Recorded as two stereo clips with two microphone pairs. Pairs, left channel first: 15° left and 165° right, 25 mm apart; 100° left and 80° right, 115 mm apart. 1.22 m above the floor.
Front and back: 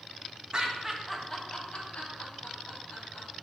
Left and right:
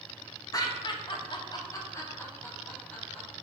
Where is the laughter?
145° left, 0.7 m; by 3.3 s 20° left, 1.7 m.